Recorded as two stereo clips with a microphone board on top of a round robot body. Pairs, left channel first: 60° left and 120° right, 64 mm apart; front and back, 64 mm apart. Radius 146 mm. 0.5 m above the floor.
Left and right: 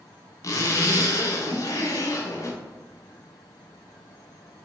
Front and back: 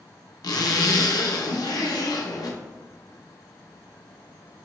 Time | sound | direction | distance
0.4 | a zipper | 20° left | 0.5 m